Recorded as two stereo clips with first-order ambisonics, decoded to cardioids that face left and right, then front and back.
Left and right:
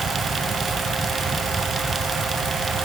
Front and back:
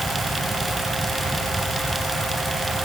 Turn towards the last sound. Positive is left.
No sound to turn to.